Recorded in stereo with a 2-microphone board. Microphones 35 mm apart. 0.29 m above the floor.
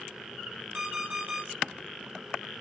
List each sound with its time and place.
0.7 s an alarm clock: 65° right (ahead or behind), 1.5 m